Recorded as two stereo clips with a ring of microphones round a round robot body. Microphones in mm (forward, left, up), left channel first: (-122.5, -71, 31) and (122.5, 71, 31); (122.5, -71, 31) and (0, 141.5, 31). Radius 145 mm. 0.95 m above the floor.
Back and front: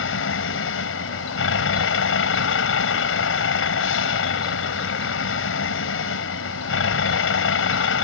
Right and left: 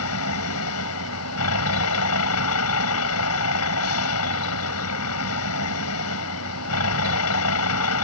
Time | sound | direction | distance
0.0 | a vehicle | 100° right | ?